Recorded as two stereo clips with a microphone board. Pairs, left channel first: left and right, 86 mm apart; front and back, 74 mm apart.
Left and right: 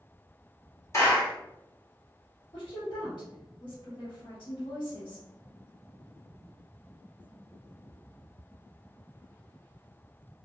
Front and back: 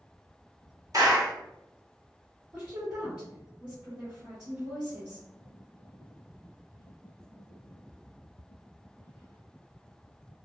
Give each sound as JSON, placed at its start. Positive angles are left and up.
{"t": 0.9, "sound": "a clap", "azimuth_deg": 145, "distance_m": 1.8}
{"t": 2.5, "sound": "a woman speaking", "azimuth_deg": 125, "distance_m": 1.5}